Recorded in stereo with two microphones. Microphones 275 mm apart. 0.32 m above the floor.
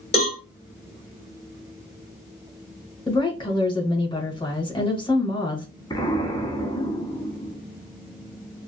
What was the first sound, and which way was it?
A cowbell, 20° left (ahead or behind).